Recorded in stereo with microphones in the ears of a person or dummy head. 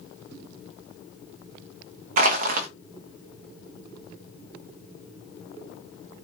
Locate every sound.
2.2 s crushing: 45° right (ahead or behind), 0.6 m